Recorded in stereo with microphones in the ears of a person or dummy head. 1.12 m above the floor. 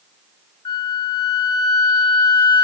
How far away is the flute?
About 1.3 m.